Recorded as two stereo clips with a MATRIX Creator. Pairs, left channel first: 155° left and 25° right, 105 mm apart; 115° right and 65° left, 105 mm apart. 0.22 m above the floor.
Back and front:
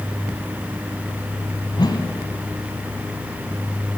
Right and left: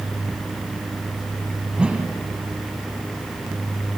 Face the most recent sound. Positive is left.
turn(degrees=145)